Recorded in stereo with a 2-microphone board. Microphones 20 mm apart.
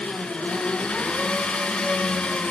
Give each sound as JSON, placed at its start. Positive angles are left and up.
{"t": 0.0, "sound": "an engine running", "side_deg": 80, "distance_m": 1.2}